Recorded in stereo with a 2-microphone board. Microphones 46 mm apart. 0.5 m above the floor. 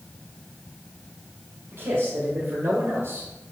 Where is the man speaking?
55° right (ahead or behind), 2.5 m.